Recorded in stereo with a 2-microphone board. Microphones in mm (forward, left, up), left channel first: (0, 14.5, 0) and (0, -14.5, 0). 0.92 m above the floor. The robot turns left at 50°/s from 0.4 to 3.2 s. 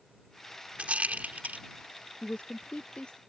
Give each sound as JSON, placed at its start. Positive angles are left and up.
{"t": 0.8, "sound": "a rattle", "side_deg": -50}
{"t": 2.2, "sound": "a woman speaking", "side_deg": 50}